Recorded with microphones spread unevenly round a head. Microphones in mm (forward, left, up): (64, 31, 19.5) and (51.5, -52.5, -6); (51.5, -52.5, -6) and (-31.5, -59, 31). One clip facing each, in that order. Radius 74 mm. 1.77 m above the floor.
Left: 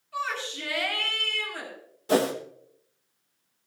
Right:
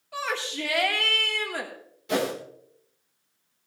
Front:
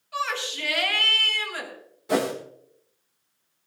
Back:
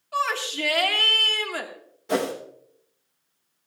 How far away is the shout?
About 2.5 m.